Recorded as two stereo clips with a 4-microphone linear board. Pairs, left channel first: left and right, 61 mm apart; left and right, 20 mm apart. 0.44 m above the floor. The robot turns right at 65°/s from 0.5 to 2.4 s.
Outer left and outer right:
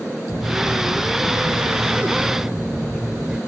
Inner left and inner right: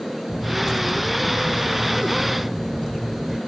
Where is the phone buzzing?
145° right; by 3.4 s 20° right.